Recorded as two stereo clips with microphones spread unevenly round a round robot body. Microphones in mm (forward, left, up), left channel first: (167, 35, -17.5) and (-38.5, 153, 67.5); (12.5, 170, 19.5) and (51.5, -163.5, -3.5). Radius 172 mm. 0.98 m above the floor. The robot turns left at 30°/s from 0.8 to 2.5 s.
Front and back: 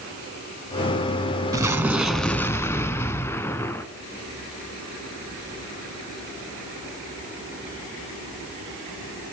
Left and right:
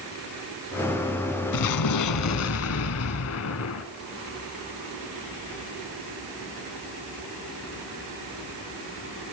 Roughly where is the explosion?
Left.